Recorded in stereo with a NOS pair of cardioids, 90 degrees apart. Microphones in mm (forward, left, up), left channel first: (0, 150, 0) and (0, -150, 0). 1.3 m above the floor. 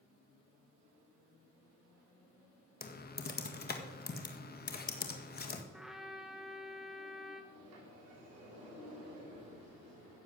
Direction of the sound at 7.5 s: 55° right.